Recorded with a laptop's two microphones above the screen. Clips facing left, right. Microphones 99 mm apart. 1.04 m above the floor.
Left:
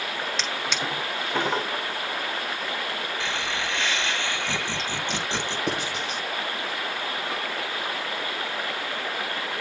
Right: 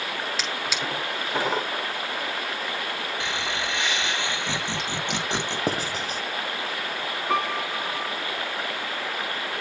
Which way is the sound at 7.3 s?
85° right.